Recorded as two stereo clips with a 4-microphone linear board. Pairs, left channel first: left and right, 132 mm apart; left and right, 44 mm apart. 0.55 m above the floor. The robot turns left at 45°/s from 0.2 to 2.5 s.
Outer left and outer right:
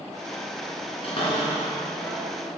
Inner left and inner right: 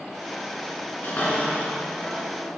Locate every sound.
1.0 s a cupboard door: 50° left (ahead or behind), 3 m; by 2.2 s 5° right (ahead or behind), 3 m